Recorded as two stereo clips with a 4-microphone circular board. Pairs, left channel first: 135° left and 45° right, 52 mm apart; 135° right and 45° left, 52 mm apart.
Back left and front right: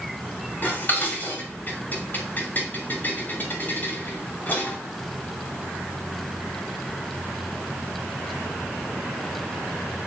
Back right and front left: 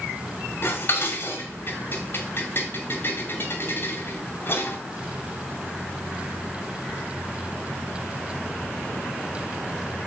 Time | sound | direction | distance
0.6 | dishes clattering | 175° right | 2.5 m